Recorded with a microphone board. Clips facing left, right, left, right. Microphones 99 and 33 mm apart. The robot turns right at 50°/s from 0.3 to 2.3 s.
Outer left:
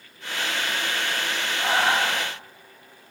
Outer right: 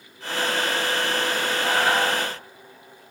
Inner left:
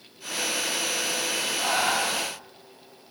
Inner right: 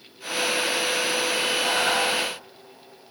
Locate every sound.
1.6 s breathing: 140° left, 4 m; by 2.3 s 175° left, 4 m